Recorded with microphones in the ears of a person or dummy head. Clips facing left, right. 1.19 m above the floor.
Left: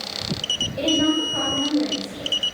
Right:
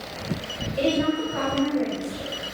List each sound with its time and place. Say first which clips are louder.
0.8 s a woman speaking: left 2 dB; 25° left (ahead or behind), 3.5 m